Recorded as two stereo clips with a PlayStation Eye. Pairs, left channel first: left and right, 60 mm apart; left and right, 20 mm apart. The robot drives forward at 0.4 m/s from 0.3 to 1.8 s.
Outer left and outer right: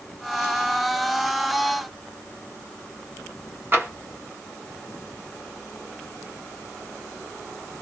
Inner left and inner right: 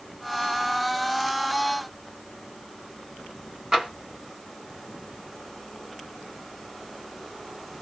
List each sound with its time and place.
3.7 s tapping: 40° right (ahead or behind), 1.2 m